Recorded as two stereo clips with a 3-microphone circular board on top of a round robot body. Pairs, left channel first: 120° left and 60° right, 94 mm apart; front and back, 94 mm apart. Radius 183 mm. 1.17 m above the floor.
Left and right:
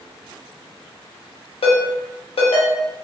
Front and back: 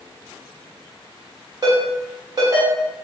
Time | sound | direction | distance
1.6 | a ringtone | 130° left | 0.6 m